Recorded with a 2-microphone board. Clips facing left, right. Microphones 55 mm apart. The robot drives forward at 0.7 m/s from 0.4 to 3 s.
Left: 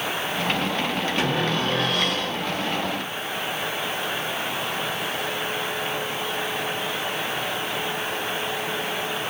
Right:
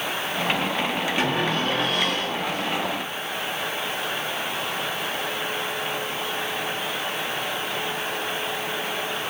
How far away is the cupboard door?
About 4.5 m.